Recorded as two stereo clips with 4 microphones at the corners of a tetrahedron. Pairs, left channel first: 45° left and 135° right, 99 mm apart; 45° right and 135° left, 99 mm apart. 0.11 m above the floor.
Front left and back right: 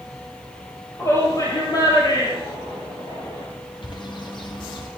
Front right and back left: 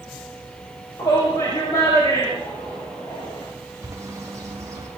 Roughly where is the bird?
Left.